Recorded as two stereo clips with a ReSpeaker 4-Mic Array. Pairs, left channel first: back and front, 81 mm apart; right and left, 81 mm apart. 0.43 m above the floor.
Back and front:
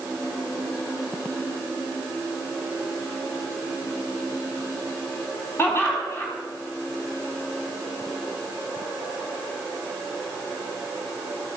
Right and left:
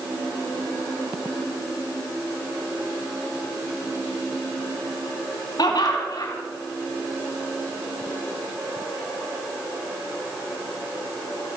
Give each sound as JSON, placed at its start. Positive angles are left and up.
{"t": 5.6, "sound": "laughter", "azimuth_deg": -120, "distance_m": 3.5}